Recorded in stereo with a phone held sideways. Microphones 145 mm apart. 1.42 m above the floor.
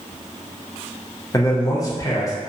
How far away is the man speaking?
About 0.7 m.